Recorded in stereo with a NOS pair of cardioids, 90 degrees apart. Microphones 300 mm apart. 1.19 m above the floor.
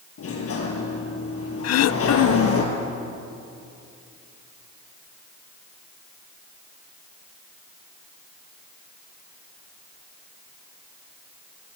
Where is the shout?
No shout in this recording.